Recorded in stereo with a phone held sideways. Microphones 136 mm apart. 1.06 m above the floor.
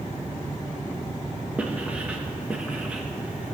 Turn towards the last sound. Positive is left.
turn(degrees=-10)  # may be behind; listen again after turning